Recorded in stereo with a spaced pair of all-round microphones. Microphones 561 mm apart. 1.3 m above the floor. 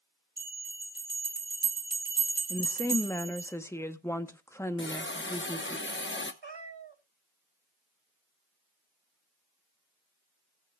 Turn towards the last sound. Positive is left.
turn(degrees=-50)  # may be behind; listen again after turning